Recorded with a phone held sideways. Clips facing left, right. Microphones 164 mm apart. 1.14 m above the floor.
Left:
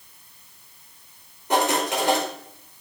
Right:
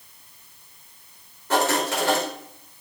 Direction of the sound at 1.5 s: 20° left (ahead or behind).